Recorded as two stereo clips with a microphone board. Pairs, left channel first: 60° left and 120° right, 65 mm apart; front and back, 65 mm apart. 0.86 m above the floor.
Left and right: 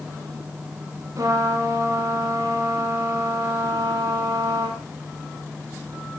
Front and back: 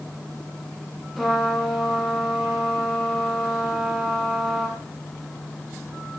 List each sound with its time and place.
1.2 s a trumpet: 90° right, 9.5 m